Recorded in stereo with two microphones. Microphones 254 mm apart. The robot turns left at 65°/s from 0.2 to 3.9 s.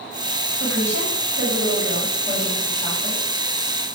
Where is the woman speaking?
65° right, 6.5 m; by 3.2 s 125° left, 6.5 m.